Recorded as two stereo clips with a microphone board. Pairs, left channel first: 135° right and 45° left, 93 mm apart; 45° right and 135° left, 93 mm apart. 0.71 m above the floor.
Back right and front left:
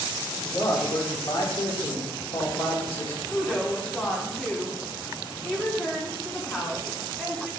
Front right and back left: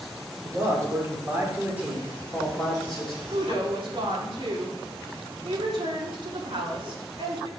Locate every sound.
0.4 s a man speaking: 175° right, 2 m; by 3.2 s 130° right, 2.5 m
3.3 s a woman speaking: 145° left, 1.8 m